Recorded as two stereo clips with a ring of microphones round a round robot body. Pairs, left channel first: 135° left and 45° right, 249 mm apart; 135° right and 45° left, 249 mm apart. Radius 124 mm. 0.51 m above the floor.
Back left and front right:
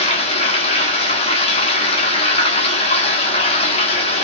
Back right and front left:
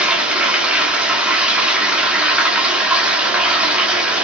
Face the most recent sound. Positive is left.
turn(degrees=125)